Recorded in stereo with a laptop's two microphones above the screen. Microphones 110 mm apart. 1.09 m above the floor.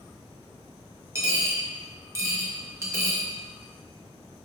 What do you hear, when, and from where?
1.1 s a dropped coin: 25° right (ahead or behind), 1.0 m